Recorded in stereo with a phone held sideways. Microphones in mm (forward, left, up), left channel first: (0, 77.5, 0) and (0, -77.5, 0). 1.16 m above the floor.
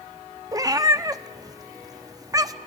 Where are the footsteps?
No footsteps in this recording.